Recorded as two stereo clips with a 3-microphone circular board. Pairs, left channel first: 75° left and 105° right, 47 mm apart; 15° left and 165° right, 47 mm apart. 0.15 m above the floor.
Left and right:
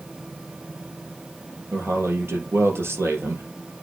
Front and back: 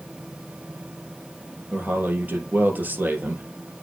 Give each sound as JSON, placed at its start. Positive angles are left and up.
{"t": 1.7, "sound": "a man speaking", "azimuth_deg": -120, "distance_m": 3.0}